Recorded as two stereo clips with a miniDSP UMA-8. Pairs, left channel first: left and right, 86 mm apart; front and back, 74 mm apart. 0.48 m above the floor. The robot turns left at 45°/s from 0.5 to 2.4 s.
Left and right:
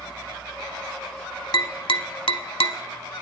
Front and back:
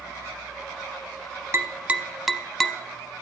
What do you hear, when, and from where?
1.5 s tapping: 130° left, 0.6 m; by 2.8 s 90° left, 0.6 m